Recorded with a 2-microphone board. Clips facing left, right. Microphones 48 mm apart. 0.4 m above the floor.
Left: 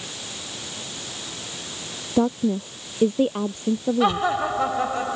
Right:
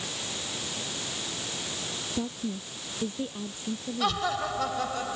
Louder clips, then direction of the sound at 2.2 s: Left 14 dB; 50° left (ahead or behind).